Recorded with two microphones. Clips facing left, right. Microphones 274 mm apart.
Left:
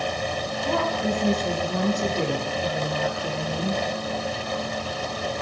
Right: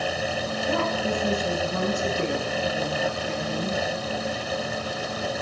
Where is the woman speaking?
70° left (ahead or behind), 7 m.